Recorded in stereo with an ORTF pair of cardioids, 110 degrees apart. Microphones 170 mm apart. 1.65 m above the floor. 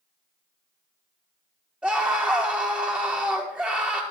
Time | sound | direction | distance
1.8 | a scream | 5° right | 4.5 m